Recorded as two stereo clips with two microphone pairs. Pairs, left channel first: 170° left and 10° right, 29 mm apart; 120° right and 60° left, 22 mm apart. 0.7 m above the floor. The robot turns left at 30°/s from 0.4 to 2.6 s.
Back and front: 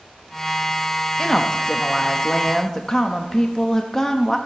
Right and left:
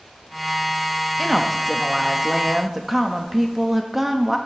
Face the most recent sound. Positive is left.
turn(degrees=125)